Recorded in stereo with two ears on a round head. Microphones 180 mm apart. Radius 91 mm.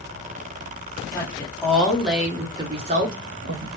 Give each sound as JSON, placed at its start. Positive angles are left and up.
{"t": 1.1, "sound": "a woman speaking", "side_deg": 15, "distance_m": 1.5}